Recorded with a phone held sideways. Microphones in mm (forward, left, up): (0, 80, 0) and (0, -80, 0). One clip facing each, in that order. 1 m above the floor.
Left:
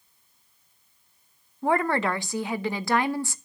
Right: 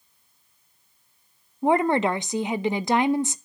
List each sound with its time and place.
1.6 s a woman speaking: 20° right (ahead or behind), 0.8 m